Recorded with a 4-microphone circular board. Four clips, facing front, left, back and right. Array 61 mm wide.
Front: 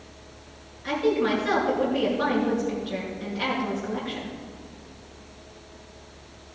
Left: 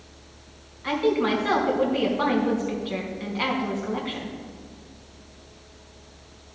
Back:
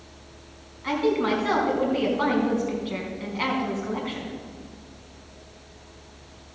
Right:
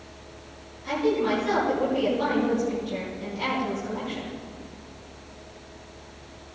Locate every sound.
0.8 s a woman speaking: 130° left, 3.5 m